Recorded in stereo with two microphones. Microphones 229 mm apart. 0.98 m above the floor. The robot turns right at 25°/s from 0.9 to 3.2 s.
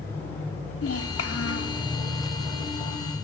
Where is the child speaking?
80° left, 1.5 m; by 1.8 s 75° left (ahead or behind), 1.5 m.